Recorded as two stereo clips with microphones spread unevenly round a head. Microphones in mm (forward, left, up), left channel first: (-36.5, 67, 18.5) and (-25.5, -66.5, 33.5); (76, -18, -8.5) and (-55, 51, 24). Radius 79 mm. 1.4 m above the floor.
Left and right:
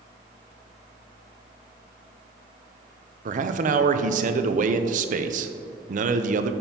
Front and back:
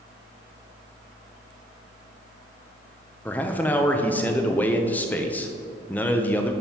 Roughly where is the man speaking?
Right.